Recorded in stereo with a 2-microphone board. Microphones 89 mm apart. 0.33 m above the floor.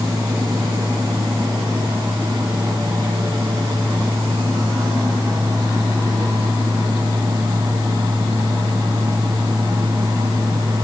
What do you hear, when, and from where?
Only background noise.